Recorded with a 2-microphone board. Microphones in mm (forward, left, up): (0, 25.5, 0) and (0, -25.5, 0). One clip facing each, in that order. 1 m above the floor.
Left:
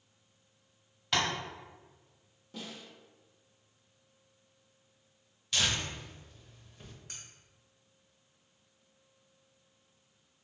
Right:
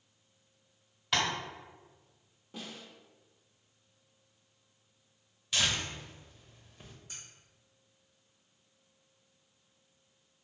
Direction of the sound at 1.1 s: 5° right (ahead or behind).